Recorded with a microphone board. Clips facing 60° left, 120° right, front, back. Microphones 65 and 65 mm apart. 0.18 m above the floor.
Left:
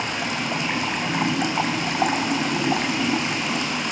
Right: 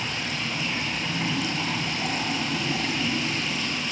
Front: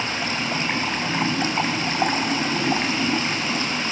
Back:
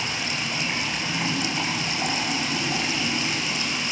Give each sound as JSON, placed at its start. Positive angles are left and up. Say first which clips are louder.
{"t": 0.0, "sound": "running water", "louder": "left 5 dB, front 3 dB", "azimuth_deg": 50, "distance_m": 1.9}